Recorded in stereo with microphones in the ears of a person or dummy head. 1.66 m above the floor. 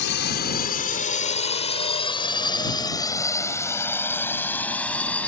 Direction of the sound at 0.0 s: 60° left (ahead or behind).